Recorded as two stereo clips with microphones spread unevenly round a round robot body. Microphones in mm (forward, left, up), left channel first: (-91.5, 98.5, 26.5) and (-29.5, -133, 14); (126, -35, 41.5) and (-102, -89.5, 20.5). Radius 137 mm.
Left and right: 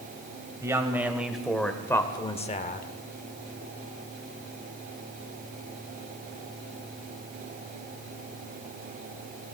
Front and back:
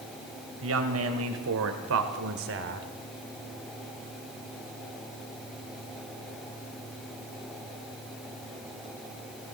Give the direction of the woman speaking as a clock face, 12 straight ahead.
5 o'clock.